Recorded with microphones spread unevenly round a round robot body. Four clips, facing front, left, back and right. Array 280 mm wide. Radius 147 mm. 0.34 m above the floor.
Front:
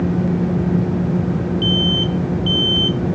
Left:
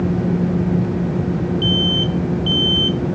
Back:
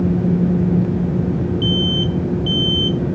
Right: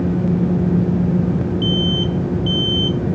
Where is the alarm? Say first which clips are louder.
Even, even; 155° right.